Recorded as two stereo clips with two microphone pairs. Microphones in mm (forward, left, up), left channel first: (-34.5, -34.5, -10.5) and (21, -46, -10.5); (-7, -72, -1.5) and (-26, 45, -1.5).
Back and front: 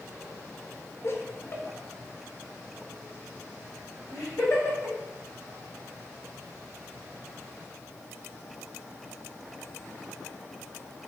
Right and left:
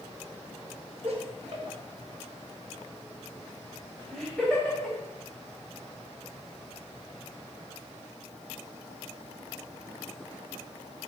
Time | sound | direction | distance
1.0 | laughter | 135° left | 3.5 m